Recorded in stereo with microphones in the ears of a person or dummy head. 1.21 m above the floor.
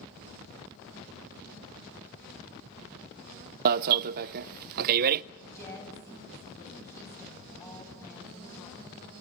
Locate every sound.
3.6 s an alarm: 50° right (ahead or behind), 0.5 m
5.4 s a woman speaking: 15° left (ahead or behind), 8.5 m